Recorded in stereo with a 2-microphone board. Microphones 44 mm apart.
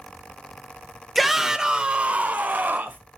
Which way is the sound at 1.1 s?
Centre (ahead or behind).